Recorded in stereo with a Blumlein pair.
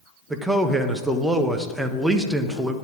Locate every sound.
0.3 s a man speaking: 5° right, 1.1 m